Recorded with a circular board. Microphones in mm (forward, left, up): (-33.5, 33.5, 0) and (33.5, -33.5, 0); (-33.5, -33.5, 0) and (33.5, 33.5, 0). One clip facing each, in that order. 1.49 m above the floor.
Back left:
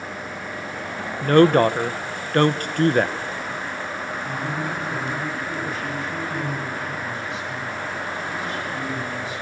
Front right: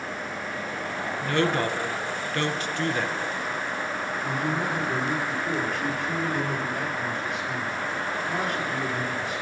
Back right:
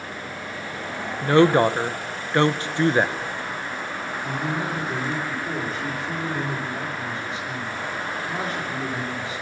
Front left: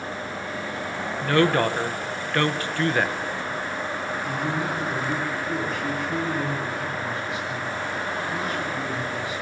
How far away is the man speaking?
About 6.5 m.